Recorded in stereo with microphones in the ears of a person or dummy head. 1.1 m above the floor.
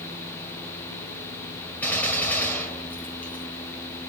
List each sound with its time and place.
1.8 s a gunshot: 5° left (ahead or behind), 1.8 m